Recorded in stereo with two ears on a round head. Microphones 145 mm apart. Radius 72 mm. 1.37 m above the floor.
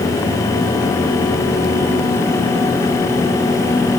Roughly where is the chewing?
No chewing in this recording.